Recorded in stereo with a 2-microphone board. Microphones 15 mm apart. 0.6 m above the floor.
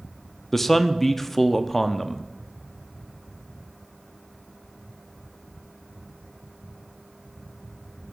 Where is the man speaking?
15° left (ahead or behind), 0.7 m.